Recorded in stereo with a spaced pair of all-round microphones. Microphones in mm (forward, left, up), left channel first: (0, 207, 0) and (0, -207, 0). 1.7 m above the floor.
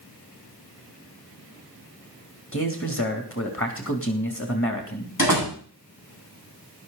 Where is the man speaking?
30° left (ahead or behind), 3 m.